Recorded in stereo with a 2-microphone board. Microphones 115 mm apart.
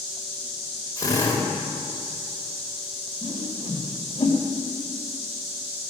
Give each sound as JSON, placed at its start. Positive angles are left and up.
{"t": 1.0, "sound": "a drill", "side_deg": 30, "distance_m": 3.0}
{"t": 3.2, "sound": "a whoosh", "side_deg": 45, "distance_m": 2.5}